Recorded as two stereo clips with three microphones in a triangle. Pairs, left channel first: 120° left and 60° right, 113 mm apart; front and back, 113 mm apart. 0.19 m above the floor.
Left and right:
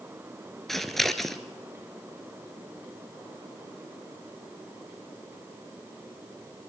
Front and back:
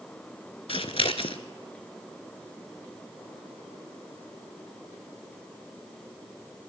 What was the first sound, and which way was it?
Scissors, 30° left.